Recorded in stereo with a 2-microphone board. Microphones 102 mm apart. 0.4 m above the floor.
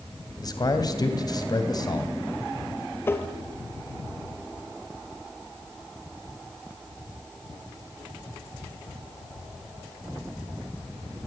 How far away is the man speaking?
About 2.5 m.